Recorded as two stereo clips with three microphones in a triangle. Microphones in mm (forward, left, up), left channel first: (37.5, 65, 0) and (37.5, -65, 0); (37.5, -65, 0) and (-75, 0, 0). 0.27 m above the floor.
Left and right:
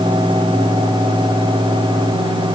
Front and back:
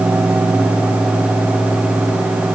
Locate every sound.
Only background noise.